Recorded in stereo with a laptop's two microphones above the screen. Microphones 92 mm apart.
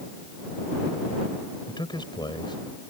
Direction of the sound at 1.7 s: 55° left (ahead or behind).